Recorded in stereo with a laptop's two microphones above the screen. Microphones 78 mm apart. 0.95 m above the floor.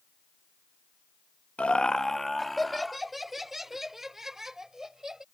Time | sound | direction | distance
1.6 | laughter | 15° left (ahead or behind) | ?